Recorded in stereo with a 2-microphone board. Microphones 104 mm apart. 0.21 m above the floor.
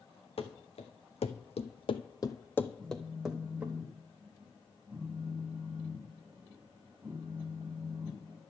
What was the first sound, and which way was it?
Running footsteps, 70° left (ahead or behind).